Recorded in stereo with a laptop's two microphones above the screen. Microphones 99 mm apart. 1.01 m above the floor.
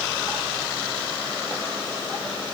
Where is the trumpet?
No trumpet in this recording.